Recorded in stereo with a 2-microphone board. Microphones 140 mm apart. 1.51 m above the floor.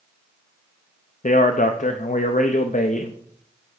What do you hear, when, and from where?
1.2 s a man speaking: 65° left (ahead or behind), 0.6 m